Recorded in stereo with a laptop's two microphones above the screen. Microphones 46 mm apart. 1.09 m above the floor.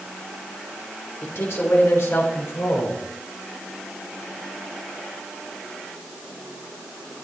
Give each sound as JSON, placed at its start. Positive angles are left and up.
{"t": 1.2, "sound": "a man speaking", "side_deg": 65, "distance_m": 3.5}